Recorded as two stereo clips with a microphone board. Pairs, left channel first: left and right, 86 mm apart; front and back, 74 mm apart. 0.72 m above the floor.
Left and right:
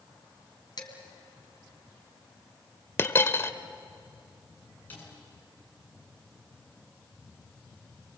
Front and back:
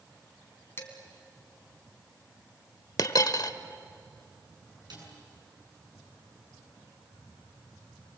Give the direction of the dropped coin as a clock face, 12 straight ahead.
11 o'clock.